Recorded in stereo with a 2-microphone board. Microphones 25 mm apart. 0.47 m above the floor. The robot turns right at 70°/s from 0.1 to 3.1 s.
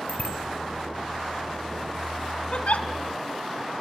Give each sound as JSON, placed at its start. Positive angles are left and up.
{"t": 0.1, "sound": "a bicycle bell", "side_deg": 60, "distance_m": 2.5}
{"t": 2.5, "sound": "a giggle", "side_deg": 50, "distance_m": 1.3}